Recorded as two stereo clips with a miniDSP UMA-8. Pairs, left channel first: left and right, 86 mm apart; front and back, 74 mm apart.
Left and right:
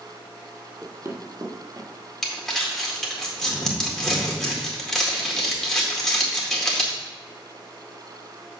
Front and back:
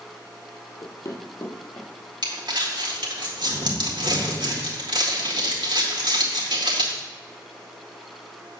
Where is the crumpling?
175° left, 1.8 m.